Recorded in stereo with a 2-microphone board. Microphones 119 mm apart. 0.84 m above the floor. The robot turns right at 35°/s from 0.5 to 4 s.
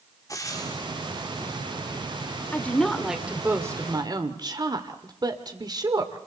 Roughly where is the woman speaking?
Behind.